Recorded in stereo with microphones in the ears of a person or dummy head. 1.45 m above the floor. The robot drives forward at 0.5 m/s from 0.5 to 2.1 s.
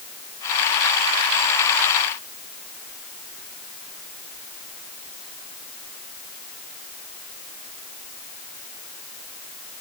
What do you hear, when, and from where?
Only background noise.